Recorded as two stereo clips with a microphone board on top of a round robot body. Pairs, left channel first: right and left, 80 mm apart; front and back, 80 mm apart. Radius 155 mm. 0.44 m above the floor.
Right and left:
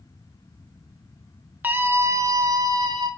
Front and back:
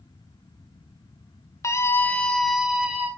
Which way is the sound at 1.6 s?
30° left.